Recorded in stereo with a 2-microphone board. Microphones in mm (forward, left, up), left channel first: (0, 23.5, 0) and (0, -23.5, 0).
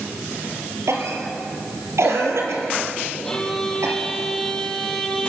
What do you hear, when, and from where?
0.9 s a cough: 75° right (ahead or behind), 4.5 m
3.2 s a violin: 10° left (ahead or behind), 3.5 m